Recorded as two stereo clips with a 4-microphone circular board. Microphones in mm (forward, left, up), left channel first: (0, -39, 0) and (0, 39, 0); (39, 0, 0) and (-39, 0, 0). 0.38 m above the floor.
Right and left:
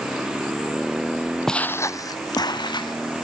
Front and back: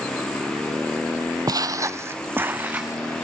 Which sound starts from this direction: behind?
Footsteps, at 1.5 s.